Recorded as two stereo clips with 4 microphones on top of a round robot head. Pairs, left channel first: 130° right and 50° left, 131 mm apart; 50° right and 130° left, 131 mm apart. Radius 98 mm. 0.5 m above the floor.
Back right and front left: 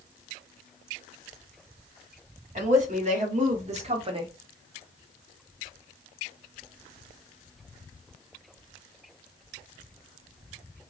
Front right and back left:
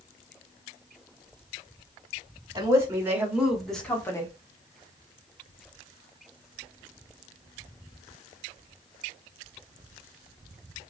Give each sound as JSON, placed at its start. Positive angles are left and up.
{"t": 2.5, "sound": "a woman speaking", "azimuth_deg": 65, "distance_m": 2.0}